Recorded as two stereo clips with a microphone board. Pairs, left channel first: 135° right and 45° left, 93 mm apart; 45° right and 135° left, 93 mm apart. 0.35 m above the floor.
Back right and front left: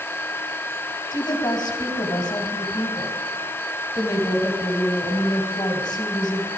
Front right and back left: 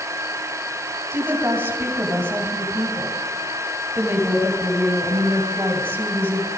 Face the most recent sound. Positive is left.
turn(degrees=-160)